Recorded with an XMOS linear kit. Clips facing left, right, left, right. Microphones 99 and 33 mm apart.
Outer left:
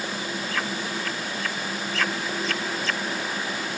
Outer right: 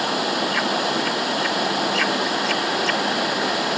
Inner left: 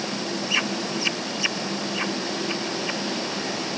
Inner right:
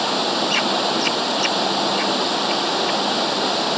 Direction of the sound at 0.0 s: 70° right (ahead or behind).